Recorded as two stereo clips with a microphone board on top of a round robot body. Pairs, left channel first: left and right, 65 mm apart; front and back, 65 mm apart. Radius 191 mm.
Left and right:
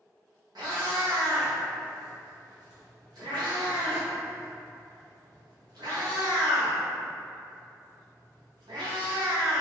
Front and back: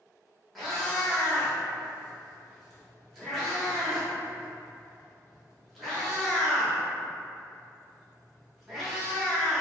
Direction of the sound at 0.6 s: 90° right.